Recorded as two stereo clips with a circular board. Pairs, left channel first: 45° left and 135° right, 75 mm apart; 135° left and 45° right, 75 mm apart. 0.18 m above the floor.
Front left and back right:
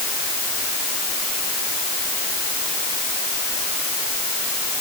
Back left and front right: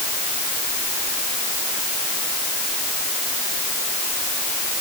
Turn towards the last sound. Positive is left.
No sound to turn to.